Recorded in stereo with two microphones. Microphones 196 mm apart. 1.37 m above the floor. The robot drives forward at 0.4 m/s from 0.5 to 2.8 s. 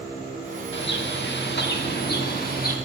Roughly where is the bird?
Left.